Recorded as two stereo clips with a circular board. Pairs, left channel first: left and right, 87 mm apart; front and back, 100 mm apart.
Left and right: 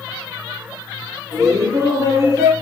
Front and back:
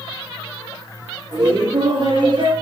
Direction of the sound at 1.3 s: 135° right.